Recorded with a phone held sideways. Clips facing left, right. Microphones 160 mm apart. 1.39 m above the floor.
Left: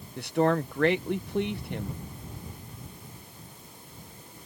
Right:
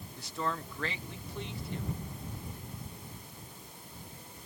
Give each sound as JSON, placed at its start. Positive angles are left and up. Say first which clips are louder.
{"t": 0.2, "sound": "a man speaking", "louder": "left 12 dB", "side_deg": 65}